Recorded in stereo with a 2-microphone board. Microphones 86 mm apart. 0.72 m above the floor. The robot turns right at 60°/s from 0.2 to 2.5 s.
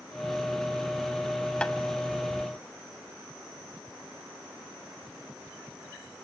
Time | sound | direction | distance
1.6 | tapping | 15° left (ahead or behind) | 1.1 m